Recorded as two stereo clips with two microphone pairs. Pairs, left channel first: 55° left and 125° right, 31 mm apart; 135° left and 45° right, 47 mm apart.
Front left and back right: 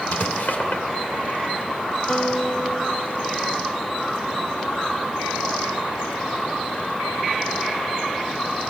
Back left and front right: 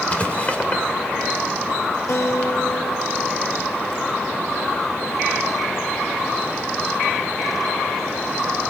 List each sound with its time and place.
0.1 s writing: 75° left, 2.5 m
2.1 s a guitar: 115° left, 1.0 m